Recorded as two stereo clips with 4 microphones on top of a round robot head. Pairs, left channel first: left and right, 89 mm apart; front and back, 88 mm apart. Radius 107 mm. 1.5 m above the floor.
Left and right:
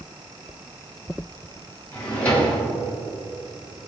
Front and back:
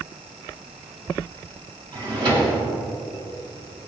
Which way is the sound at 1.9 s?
160° left.